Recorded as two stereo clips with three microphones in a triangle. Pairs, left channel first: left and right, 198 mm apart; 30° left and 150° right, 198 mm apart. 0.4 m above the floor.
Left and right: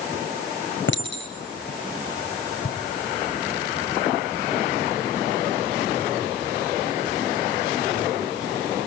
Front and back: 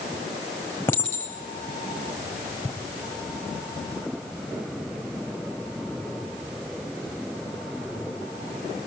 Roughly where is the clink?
Left.